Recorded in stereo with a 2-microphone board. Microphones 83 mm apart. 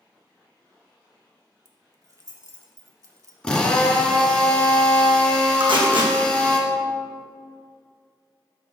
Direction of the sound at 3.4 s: 15° left (ahead or behind).